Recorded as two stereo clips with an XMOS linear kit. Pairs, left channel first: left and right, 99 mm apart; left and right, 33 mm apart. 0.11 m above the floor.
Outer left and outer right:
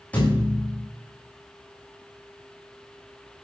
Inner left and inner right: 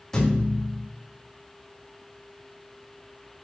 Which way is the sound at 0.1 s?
15° left (ahead or behind).